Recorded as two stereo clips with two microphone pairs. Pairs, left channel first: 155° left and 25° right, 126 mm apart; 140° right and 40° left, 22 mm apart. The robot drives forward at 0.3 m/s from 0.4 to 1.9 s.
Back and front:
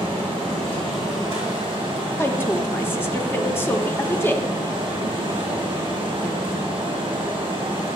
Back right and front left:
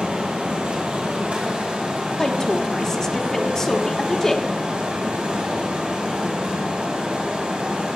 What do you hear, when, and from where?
0.0 s running water: 15° left, 3 m; by 8.0 s 20° left, 2.5 m
2.2 s a woman speaking: 160° right, 0.7 m